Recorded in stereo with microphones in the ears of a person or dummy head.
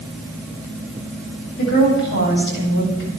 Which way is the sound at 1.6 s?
55° left (ahead or behind).